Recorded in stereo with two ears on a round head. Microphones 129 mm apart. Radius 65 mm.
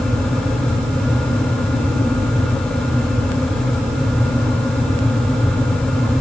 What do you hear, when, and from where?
Only background noise.